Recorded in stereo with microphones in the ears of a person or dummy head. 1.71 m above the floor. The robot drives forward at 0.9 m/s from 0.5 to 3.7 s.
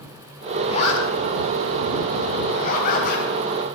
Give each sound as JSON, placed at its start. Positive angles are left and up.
{"t": 0.7, "sound": "a zipper", "side_deg": 35, "distance_m": 6.0}